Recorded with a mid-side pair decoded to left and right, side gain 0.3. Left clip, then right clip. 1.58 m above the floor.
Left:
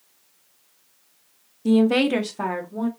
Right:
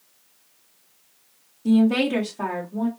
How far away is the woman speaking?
About 0.8 m.